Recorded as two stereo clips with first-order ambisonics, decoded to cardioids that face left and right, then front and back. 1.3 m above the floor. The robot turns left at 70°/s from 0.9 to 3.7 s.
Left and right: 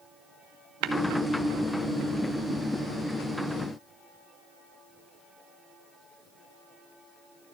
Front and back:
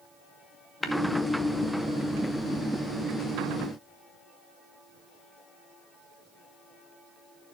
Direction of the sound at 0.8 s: 85° right.